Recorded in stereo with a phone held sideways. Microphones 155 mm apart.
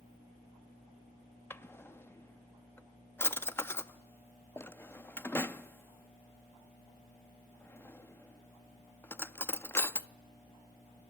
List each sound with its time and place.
1.5 s a drawer: 15° left (ahead or behind), 0.6 m